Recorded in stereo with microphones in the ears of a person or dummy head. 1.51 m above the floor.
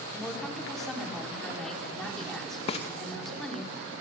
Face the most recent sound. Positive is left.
turn(degrees=35)  # may be behind; listen again after turning